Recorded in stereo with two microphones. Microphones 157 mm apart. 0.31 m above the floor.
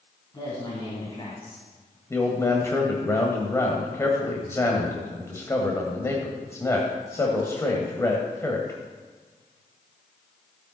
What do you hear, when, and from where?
0.3 s a woman speaking: 30° left (ahead or behind), 2.5 m; by 2.0 s 45° left (ahead or behind), 2 m
2.1 s a man speaking: 20° left (ahead or behind), 1.5 m